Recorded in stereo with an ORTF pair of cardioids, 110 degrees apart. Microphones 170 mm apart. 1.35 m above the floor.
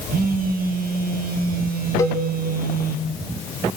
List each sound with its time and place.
0.1 s a phone buzzing: 55° right, 1.6 m
2.0 s a cowbell: 20° left, 2.5 m